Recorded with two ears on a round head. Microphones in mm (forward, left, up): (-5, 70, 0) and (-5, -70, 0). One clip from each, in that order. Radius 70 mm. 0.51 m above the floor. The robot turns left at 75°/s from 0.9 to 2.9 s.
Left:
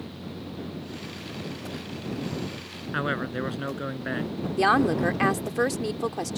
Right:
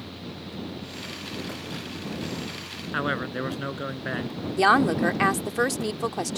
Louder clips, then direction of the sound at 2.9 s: Right 1 dB; 10° right (ahead or behind).